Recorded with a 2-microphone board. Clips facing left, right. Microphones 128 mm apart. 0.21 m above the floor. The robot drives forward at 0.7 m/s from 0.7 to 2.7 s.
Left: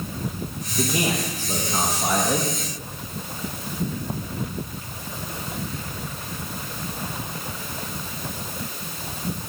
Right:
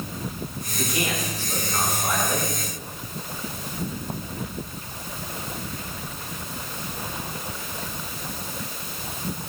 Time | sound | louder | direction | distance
0.8 | a man speaking | left 4 dB | 40° left (ahead or behind) | 6.5 m